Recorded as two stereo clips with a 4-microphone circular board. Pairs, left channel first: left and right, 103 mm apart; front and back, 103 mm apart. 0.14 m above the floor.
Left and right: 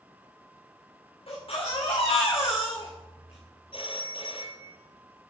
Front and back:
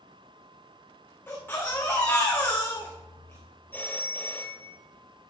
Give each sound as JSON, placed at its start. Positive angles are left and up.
{"t": 1.3, "sound": "a baby crying", "azimuth_deg": 70, "distance_m": 5.0}
{"t": 3.7, "sound": "a phone ringing", "azimuth_deg": 70, "distance_m": 1.8}